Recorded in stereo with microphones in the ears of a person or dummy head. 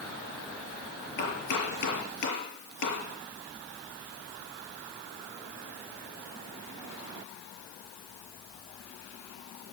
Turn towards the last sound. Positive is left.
turn(degrees=60)  # may be behind; listen again after turning